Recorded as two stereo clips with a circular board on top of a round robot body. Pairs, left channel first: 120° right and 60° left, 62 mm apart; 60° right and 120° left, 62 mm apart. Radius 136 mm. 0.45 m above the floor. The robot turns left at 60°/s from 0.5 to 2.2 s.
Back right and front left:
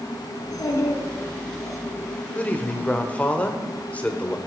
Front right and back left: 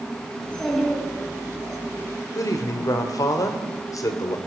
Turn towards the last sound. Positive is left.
turn(degrees=-50)